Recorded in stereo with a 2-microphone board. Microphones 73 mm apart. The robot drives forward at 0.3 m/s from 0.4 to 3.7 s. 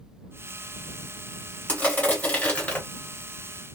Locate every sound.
1.7 s crushing: 20° left (ahead or behind), 1.7 m